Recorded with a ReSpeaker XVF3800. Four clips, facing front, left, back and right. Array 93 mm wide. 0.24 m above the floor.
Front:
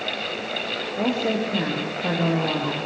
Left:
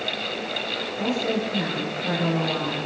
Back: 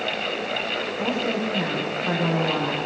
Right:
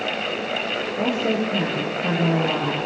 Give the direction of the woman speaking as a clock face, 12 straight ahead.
1 o'clock.